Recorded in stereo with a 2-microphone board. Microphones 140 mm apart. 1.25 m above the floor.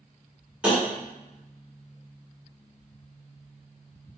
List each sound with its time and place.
0.6 s tapping: 5° right (ahead or behind), 1.2 m